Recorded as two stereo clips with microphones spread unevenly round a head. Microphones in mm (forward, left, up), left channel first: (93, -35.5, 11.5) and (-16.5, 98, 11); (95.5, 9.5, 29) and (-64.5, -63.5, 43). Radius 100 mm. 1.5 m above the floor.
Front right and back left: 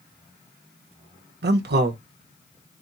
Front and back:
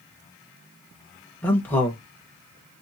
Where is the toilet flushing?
I don't hear a toilet flushing.